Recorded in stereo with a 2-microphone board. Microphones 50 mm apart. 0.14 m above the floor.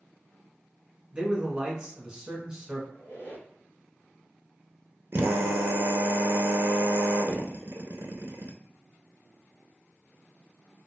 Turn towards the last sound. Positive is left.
turn(degrees=-50)  # may be behind; listen again after turning